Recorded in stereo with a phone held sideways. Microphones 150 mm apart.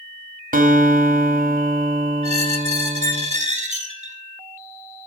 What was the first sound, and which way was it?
A guitar, 65° right (ahead or behind).